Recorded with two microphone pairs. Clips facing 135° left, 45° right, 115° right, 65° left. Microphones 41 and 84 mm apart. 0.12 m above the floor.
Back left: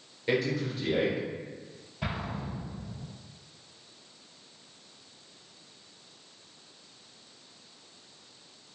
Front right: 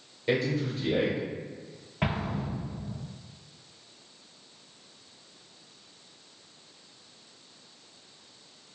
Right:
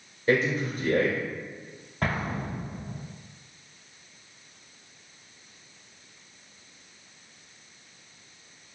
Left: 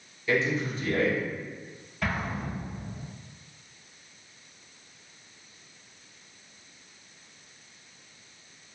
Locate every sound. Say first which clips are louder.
0.3 s a man speaking: front right 1 dB, right 2 dB; 140° right, 1.7 m
2.0 s an explosion: front right 4 dB, right 2 dB; 75° right, 0.5 m